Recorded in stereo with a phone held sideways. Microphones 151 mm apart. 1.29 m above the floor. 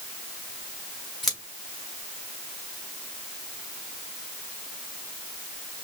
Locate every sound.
1.2 s scissors: centre (ahead or behind), 2.5 m